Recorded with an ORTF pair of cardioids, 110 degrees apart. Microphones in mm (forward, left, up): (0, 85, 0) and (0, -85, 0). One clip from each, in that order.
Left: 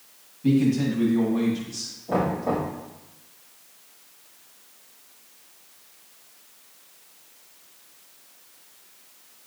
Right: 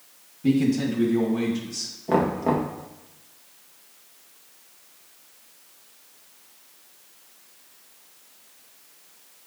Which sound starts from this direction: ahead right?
Knocking, at 2.1 s.